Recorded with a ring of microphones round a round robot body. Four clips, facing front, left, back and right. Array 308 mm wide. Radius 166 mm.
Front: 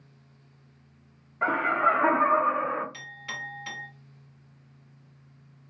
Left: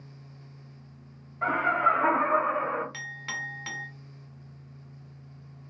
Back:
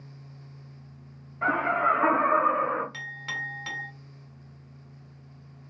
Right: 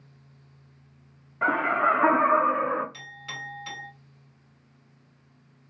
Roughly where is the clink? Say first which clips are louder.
Left 3 dB, back 3 dB; behind left.